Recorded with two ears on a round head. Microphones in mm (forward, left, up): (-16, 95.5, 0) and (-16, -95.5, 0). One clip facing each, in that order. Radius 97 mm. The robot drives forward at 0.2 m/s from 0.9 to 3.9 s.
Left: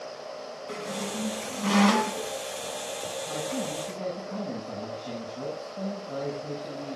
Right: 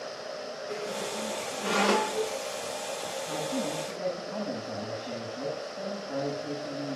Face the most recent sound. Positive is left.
turn(degrees=50)  # may be behind; listen again after turning